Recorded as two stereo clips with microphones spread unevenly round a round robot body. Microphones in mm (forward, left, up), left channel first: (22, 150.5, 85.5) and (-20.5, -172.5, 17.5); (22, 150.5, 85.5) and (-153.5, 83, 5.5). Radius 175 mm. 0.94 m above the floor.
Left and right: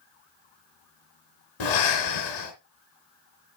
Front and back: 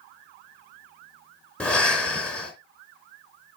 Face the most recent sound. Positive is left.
turn(degrees=100)